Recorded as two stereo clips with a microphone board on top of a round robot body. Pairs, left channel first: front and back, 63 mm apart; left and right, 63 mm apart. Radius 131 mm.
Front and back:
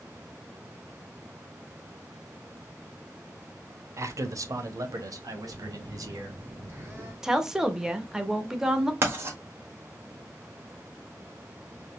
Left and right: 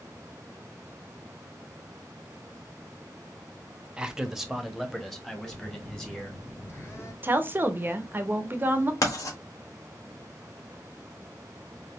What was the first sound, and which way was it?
A man speaking, 165° right.